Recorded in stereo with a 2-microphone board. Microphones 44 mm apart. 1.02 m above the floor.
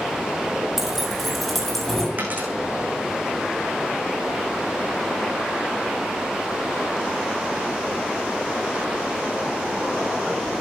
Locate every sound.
0.8 s keys jangling: 10° right (ahead or behind), 4 m; by 2.1 s 10° left (ahead or behind), 5 m
2.2 s a dropped coin: 35° right (ahead or behind), 7.5 m